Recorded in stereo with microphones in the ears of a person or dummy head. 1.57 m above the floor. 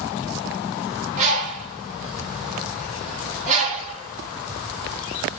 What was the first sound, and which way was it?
A bird, 40° right (ahead or behind).